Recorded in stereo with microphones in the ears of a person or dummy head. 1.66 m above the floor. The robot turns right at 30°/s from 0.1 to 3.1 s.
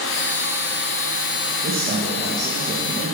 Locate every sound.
1.6 s a man speaking: 40° right, 2 m; by 3.1 s 5° left, 2 m